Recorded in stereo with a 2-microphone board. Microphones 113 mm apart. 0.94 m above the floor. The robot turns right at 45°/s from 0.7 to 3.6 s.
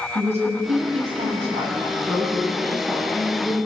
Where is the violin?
I don't hear a violin.